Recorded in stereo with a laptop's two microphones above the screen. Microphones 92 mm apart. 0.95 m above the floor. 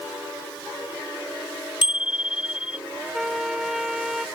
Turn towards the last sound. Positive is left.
turn(degrees=-5)  # may be behind; listen again after turning